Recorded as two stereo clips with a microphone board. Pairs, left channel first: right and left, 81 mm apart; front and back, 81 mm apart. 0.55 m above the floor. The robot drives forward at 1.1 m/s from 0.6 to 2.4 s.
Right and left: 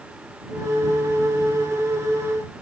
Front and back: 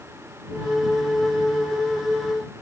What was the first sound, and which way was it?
Only background noise.